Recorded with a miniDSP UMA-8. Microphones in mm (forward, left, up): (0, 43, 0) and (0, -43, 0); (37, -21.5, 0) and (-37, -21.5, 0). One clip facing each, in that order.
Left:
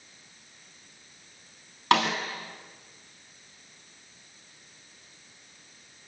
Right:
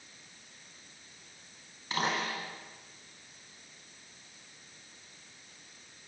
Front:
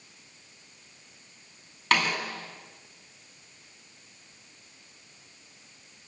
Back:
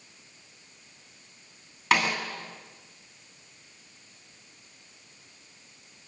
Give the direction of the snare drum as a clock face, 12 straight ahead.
9 o'clock.